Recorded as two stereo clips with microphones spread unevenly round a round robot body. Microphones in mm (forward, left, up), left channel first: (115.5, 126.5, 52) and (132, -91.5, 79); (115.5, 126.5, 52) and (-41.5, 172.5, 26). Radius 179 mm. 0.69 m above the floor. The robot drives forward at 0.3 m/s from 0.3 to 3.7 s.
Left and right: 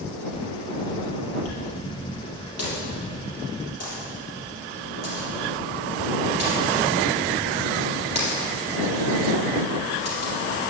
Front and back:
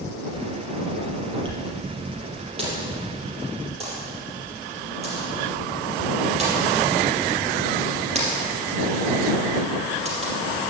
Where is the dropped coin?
105° left, 4 m; by 10.3 s 110° left, 4.5 m.